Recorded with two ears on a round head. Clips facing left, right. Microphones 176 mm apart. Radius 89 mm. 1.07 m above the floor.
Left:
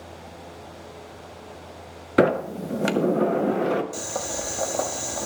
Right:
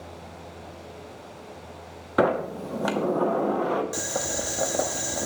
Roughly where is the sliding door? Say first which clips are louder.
Left 3 dB; left.